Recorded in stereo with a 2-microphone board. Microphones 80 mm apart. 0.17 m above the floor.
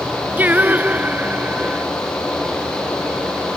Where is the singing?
25° right (ahead or behind).